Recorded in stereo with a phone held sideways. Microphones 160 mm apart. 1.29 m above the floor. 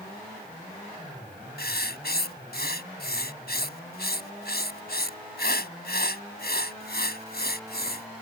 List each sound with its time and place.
1.6 s writing: 80° left